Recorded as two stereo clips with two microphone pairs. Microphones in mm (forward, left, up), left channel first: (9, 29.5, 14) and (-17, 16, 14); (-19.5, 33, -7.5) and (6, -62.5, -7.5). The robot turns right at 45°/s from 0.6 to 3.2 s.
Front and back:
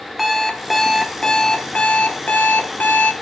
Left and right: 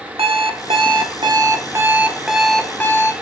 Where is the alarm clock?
70° right, 1.3 m; by 3.1 s 45° left, 1.3 m.